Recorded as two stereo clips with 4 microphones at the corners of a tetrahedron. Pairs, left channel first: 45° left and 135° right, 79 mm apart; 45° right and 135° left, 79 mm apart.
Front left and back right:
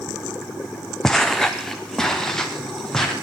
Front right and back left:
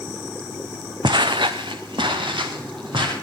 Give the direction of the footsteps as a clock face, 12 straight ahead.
8 o'clock.